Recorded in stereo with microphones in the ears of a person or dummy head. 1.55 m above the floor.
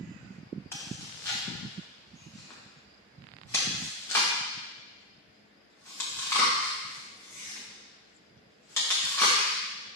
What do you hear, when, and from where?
0.7 s chewing: 20° left (ahead or behind), 1.3 m